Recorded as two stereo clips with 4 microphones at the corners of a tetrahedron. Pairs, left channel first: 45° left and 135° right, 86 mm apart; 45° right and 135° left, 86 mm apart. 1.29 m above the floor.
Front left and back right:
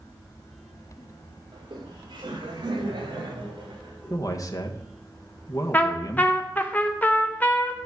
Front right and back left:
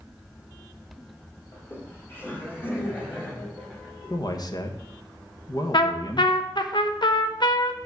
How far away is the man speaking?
About 1.2 m.